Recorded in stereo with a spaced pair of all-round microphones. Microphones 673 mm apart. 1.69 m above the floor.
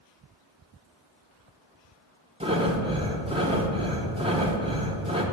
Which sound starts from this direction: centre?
Breathing, at 2.4 s.